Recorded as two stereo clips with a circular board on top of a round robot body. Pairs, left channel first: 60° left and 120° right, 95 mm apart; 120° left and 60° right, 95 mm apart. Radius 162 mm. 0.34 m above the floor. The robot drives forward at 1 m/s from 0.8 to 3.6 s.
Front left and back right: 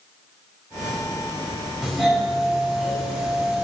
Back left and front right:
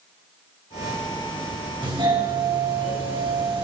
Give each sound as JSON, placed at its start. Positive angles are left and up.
{"t": 1.8, "sound": "a doorbell", "azimuth_deg": -30, "distance_m": 4.5}